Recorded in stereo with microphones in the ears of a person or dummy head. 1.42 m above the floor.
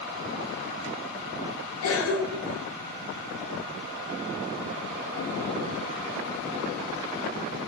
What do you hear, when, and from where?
1.8 s a cough: 75° left (ahead or behind), 0.8 m